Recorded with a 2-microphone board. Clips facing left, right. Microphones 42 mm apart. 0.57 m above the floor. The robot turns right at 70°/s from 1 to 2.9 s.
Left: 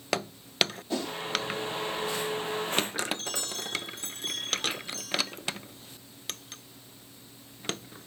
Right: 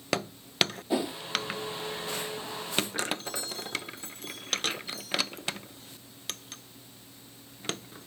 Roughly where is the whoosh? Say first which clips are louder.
Right 3 dB; centre.